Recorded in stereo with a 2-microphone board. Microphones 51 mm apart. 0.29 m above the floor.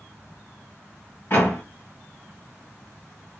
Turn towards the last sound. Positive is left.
turn(degrees=40)  # may be behind; listen again after turning